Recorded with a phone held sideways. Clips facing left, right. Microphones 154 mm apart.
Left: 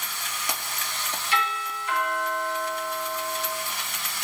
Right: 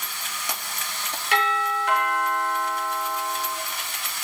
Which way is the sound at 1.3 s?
75° right (ahead or behind).